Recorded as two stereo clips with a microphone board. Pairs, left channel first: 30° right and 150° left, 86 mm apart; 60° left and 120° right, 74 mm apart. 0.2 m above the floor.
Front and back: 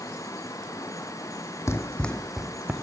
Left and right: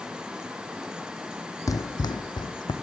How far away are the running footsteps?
About 0.5 m.